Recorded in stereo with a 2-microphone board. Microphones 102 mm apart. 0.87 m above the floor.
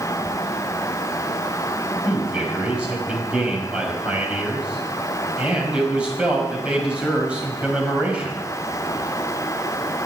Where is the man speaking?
10° right (ahead or behind), 5.5 m.